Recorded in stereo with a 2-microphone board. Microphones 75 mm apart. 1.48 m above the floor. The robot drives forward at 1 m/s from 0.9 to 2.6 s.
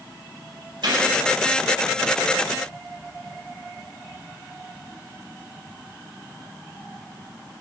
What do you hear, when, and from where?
0.8 s a gunshot: 65° right (ahead or behind), 8.5 m